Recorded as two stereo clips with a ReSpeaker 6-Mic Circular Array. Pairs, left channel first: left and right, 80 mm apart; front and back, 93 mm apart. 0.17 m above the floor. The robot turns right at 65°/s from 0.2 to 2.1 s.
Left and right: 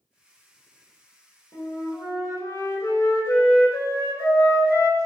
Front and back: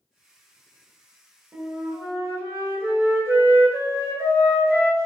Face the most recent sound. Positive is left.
turn(degrees=130)